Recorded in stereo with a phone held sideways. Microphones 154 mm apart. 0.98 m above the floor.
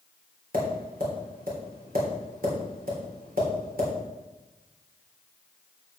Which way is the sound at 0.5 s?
75° right (ahead or behind).